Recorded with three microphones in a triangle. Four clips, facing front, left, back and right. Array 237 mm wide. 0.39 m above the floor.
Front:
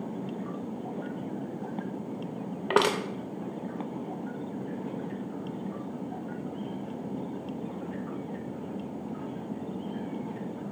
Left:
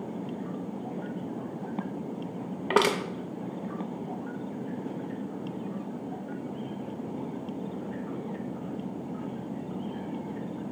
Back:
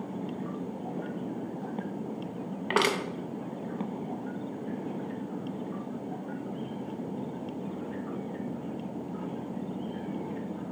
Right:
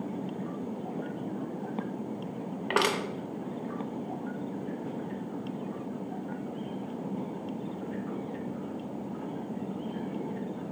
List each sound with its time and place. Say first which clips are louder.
2.7 s crushing: left 4 dB, front 3 dB; 35° left, 0.7 m